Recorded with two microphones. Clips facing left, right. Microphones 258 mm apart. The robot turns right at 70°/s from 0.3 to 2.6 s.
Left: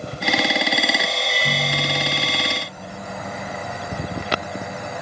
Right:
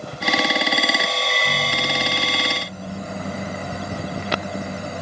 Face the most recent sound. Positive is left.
turn(degrees=-140)